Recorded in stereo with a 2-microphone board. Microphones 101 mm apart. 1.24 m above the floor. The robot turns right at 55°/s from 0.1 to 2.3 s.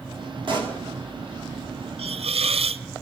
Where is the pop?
55° right (ahead or behind), 2.5 m; by 0.8 s 40° right (ahead or behind), 2.5 m.